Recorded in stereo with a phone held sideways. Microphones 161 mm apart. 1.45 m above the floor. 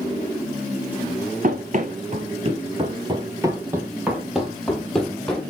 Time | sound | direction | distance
1.4 | running footsteps | 55° right (ahead or behind) | 2.5 m